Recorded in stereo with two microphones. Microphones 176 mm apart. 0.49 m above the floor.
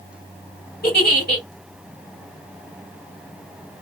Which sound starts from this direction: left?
A giggle, at 0.8 s.